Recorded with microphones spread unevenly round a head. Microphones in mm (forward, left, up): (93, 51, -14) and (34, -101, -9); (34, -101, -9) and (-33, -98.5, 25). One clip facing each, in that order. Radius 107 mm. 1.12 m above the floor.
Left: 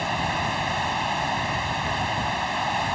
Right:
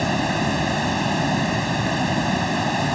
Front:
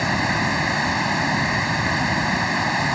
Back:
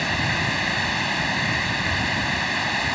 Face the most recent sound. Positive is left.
turn(degrees=-75)